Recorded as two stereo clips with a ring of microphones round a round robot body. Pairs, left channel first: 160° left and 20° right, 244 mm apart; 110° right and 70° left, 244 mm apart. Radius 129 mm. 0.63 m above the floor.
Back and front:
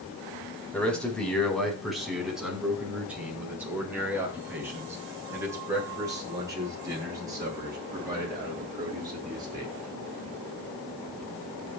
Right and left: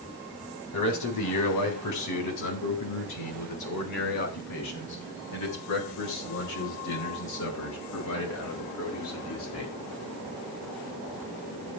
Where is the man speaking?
115° right, 4 m; by 9.7 s 95° right, 9.5 m.